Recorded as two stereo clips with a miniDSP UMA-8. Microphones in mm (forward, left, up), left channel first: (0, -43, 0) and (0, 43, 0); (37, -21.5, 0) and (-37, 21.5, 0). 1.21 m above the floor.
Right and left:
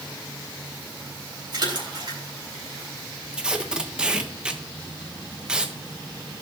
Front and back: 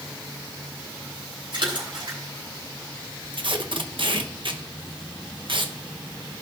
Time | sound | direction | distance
1.5 | a splash | 125° left | 4 m
3.3 | tape being pulled | 170° left | 1.0 m